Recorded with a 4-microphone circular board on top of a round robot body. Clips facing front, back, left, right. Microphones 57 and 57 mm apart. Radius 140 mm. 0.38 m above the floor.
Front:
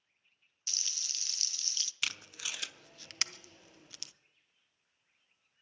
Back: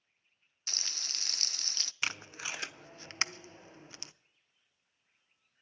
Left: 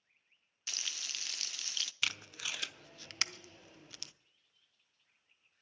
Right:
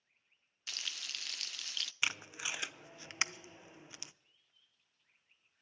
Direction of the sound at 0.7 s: Straight behind.